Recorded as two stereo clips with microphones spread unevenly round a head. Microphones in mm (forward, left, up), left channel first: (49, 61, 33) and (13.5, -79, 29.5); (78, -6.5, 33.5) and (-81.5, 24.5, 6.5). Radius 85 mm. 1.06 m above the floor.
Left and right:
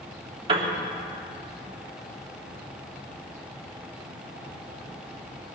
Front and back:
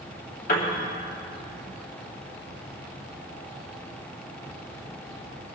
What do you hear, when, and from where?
0.5 s a piano: 55° right, 3 m